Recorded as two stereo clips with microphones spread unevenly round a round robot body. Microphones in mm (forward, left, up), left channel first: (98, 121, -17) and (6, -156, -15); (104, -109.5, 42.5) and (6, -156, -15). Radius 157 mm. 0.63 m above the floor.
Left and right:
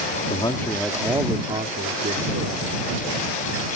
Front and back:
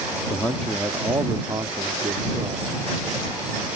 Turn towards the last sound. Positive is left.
turn(degrees=-160)